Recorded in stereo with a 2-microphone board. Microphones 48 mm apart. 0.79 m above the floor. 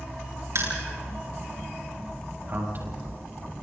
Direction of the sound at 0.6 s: 75° right (ahead or behind).